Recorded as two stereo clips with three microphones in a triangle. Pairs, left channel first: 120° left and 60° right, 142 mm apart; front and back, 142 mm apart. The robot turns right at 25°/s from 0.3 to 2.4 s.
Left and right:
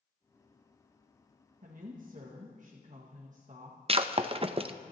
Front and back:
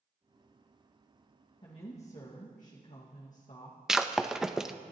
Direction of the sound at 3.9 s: 95° right.